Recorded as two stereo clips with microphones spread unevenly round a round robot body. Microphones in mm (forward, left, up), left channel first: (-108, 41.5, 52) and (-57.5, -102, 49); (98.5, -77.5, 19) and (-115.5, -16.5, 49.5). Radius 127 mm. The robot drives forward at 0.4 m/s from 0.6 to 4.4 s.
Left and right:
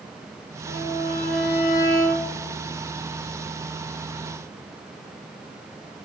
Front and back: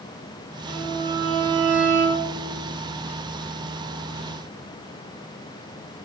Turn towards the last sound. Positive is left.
turn(degrees=125)